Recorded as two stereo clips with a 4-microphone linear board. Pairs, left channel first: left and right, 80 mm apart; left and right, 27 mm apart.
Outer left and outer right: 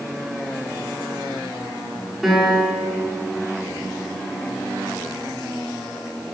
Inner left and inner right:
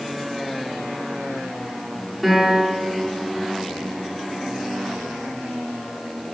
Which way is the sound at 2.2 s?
5° right (ahead or behind).